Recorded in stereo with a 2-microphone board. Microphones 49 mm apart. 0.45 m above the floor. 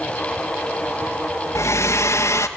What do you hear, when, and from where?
1.6 s a hair dryer: 80° left, 2 m